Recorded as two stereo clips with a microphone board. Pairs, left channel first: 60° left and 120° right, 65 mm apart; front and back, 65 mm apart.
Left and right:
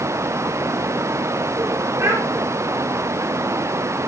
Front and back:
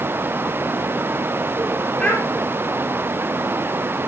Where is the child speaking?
75° right, 5.5 m.